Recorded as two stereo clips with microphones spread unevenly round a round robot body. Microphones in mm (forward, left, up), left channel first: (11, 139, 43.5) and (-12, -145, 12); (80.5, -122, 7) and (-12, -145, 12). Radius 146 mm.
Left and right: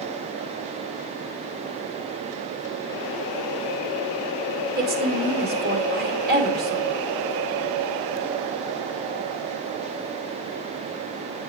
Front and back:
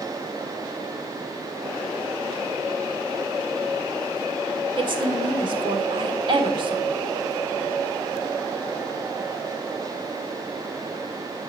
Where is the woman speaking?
140° right, 1.3 m.